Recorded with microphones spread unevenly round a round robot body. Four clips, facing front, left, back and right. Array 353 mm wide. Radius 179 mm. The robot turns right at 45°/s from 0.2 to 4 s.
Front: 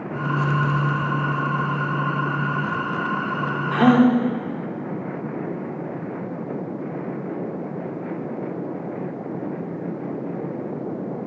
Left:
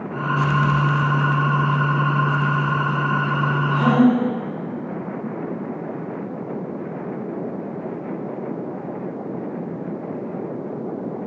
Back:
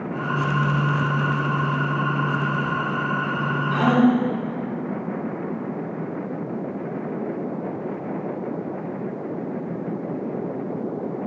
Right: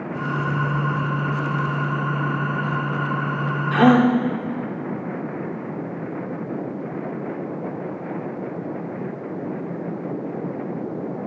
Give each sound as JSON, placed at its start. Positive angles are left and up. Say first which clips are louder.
{"t": 3.7, "sound": "a gasp", "louder": "right 2 dB, front 3 dB", "azimuth_deg": -75, "distance_m": 1.9}